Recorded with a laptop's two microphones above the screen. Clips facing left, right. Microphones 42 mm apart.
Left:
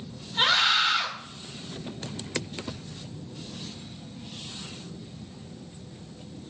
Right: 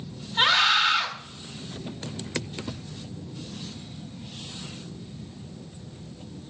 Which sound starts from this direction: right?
A scream, at 0.4 s.